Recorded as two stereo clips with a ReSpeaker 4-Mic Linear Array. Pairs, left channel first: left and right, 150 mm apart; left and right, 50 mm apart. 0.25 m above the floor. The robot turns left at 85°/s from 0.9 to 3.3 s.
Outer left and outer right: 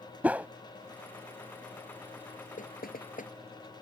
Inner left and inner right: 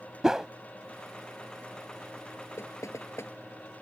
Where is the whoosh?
10° right (ahead or behind).